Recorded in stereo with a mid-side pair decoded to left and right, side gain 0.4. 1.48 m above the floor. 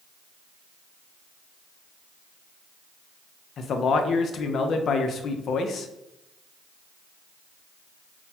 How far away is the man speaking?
About 0.5 m.